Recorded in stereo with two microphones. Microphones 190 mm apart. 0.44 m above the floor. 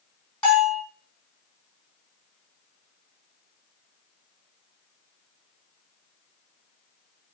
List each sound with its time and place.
0.4 s a bell: 5° left (ahead or behind), 4.5 m